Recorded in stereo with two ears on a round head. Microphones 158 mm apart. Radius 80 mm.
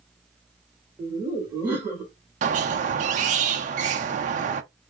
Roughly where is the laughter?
Centre.